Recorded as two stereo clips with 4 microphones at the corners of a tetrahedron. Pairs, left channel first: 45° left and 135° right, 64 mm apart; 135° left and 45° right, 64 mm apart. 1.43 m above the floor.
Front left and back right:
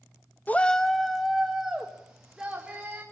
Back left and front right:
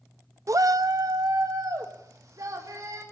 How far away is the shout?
About 0.6 m.